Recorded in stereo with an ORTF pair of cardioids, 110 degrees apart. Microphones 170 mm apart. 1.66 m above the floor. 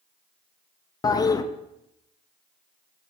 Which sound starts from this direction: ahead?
A toilet flushing, at 1.0 s.